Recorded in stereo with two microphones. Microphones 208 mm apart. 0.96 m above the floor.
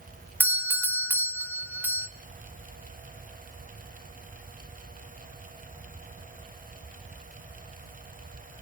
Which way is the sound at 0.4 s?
10° right (ahead or behind).